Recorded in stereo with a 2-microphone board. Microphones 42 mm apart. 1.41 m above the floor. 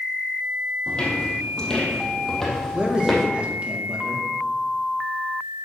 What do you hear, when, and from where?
0.9 s footsteps: 25° left (ahead or behind), 3 m; by 3.2 s 5° right (ahead or behind), 3 m
2.7 s a man speaking: 30° right (ahead or behind), 2 m